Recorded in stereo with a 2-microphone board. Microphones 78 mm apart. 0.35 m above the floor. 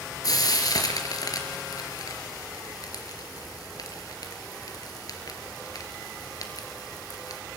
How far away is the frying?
About 3.5 m.